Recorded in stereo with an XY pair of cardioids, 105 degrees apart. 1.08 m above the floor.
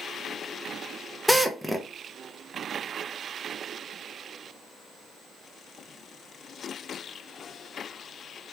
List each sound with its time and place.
1.3 s a drill: straight ahead, 0.5 m